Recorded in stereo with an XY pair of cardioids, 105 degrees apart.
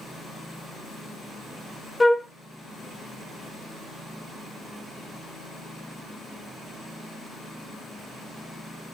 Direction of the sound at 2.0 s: 15° left.